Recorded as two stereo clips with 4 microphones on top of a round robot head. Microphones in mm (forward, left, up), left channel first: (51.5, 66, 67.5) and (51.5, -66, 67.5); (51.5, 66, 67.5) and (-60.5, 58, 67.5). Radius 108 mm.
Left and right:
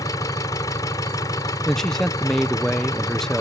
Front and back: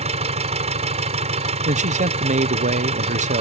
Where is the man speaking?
175° left.